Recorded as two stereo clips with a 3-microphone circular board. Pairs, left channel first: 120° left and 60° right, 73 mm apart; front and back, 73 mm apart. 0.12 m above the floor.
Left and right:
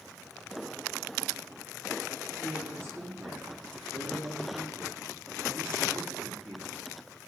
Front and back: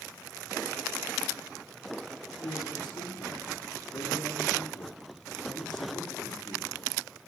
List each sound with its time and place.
2.4 s a man speaking: 5° right, 6 m